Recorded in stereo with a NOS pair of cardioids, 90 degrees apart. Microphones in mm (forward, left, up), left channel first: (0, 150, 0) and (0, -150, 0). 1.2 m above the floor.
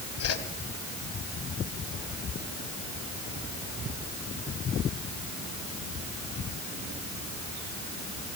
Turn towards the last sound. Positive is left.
turn(degrees=60)